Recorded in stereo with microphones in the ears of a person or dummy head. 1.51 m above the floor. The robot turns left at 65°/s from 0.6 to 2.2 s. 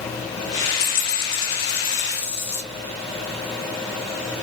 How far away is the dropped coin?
About 1.8 m.